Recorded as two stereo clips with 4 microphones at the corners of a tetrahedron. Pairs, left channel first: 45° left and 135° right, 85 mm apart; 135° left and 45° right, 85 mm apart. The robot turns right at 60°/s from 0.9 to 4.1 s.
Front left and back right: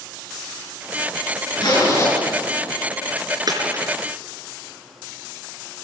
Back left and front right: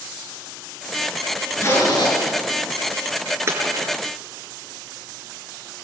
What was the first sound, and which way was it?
A zipper, 75° left.